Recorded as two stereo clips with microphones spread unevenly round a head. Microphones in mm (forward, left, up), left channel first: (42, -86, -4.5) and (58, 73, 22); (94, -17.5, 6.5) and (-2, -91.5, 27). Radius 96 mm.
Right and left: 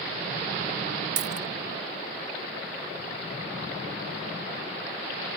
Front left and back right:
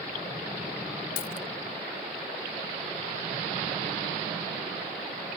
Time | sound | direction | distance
1.2 | a dropped coin | 75° left | ?